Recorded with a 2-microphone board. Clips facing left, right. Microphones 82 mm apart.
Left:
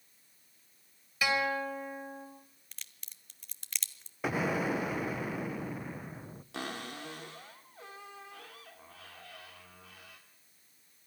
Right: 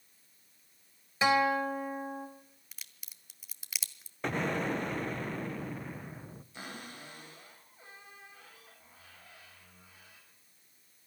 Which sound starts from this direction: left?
A cupboard door, at 6.5 s.